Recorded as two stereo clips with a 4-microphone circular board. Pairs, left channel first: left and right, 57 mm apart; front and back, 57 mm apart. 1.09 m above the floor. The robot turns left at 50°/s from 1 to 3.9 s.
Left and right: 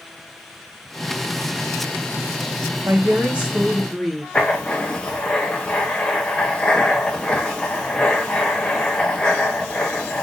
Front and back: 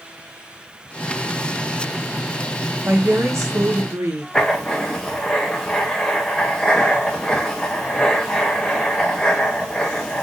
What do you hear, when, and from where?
2.8 s a woman speaking: 130° right, 1.1 m; by 4.2 s 175° left, 1.1 m
4.3 s writing: 50° left, 0.7 m